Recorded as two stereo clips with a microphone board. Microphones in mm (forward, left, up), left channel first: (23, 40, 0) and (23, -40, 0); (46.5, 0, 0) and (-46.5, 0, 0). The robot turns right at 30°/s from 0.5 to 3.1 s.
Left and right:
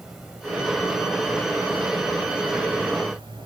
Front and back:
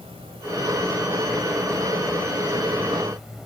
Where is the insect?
175° right, 1.9 m; by 3.5 s 95° right, 1.9 m.